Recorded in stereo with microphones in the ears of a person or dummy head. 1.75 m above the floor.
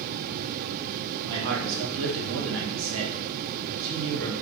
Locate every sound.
1.2 s a man speaking: 60° right (ahead or behind), 0.9 m